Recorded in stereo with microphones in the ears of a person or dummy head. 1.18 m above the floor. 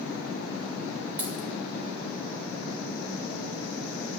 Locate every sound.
1.2 s a dropped coin: 20° right (ahead or behind), 0.8 m